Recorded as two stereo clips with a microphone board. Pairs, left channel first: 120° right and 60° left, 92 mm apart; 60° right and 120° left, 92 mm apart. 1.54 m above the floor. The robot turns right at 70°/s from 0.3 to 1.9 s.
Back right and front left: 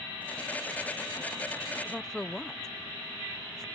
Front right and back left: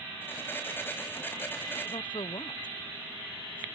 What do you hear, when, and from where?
1.9 s a woman speaking: 40° right; by 3.6 s 35° right